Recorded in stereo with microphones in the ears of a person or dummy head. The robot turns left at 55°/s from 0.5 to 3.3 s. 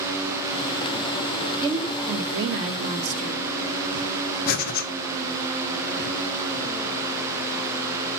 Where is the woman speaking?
20° right, 1.7 m; by 3.5 s 115° right, 1.7 m.